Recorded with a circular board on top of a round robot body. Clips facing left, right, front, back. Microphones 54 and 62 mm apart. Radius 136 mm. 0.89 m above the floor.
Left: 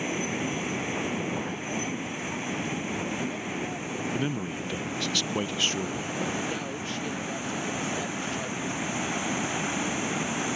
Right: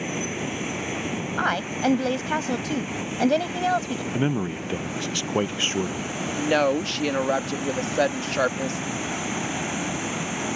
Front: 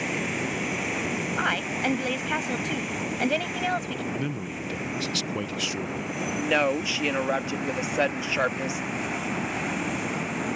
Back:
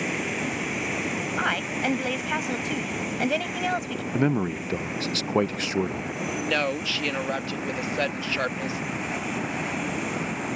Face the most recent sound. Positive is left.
turn(degrees=-75)